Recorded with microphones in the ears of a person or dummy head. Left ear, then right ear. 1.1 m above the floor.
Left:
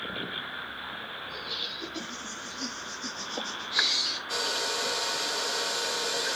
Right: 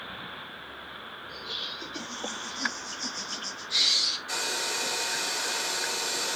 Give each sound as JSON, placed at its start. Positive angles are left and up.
{"t": 1.3, "sound": "laughter", "side_deg": -35, "distance_m": 4.5}
{"t": 4.3, "sound": "a hair dryer", "side_deg": -65, "distance_m": 6.0}